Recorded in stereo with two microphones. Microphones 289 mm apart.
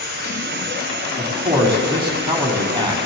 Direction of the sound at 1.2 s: 15° right (ahead or behind).